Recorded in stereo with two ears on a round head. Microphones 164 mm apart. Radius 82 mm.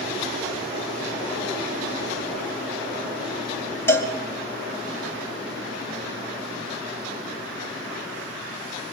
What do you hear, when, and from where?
3.9 s a cowbell: 15° left (ahead or behind), 3 m